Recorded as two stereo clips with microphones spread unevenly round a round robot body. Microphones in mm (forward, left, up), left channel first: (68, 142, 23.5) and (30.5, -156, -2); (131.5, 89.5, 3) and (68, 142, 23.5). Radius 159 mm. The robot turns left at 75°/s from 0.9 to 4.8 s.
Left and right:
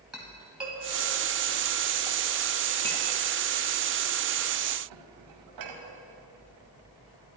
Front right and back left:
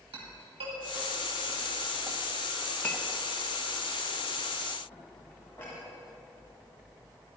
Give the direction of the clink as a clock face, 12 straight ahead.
6 o'clock.